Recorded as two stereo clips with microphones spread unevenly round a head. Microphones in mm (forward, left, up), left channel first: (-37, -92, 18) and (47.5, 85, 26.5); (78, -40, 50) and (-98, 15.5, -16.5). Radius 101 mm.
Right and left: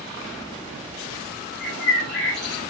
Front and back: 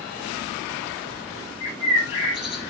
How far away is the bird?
About 7.5 m.